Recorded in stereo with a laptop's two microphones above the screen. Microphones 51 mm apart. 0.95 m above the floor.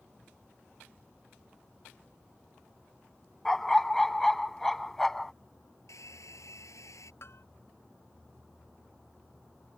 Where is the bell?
60° left (ahead or behind).